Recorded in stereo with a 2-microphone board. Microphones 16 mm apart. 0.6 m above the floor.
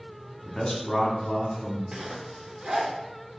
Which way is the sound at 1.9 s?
65° right (ahead or behind).